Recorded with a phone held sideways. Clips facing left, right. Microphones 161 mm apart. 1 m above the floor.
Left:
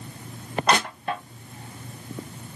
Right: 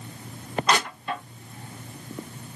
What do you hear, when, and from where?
0.7 s crushing: 55° left (ahead or behind), 0.9 m